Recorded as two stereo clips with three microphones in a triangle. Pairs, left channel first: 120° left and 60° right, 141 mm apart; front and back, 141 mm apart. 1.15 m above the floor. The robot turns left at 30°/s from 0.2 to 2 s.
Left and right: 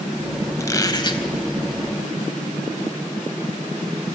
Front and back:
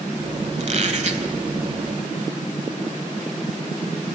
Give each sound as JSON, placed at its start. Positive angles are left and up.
{"t": 0.6, "sound": "a squeak", "azimuth_deg": -175, "distance_m": 1.5}